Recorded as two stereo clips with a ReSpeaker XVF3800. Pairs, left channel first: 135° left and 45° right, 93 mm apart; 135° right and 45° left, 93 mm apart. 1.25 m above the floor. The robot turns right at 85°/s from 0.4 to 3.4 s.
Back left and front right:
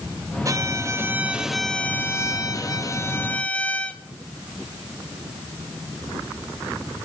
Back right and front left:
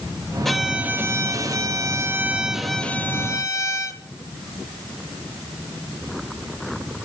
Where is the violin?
50° right, 1.1 m; by 4.0 s 160° right, 1.1 m.